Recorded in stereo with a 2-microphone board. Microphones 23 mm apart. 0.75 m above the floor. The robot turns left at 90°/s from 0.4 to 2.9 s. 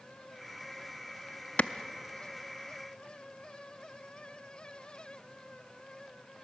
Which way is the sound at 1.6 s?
60° left (ahead or behind).